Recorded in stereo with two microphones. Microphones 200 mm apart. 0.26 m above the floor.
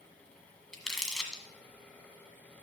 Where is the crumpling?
Centre (ahead or behind), 1.5 m.